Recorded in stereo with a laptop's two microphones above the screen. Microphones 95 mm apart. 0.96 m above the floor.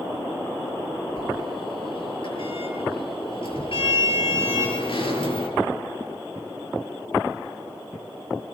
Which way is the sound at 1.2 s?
65° left (ahead or behind).